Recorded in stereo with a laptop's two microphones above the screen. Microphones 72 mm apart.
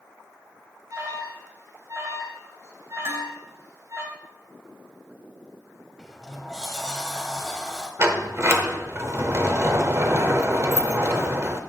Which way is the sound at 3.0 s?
45° right (ahead or behind).